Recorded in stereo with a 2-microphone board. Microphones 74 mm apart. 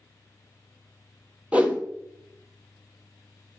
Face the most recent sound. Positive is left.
turn(degrees=-20)  # may be behind; listen again after turning